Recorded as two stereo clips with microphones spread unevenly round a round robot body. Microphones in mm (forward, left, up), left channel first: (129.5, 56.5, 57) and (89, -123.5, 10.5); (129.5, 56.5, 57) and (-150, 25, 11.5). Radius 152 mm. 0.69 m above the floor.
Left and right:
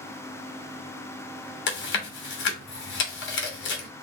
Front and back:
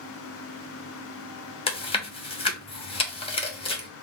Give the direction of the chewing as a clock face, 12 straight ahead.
9 o'clock.